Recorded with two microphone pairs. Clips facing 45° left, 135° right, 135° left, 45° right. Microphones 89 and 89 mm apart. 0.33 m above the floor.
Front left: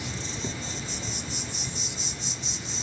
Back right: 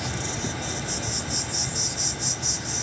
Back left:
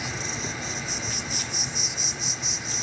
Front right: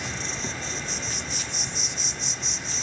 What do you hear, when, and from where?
0.0 s an insect: 140° right, 0.8 m